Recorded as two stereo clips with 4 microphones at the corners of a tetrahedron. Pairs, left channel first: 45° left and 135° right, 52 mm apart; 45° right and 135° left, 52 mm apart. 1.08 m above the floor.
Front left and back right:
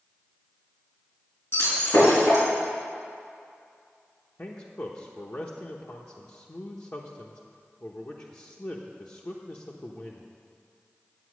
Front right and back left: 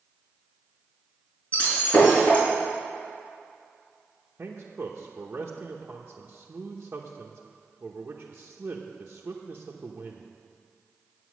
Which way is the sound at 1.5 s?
15° left.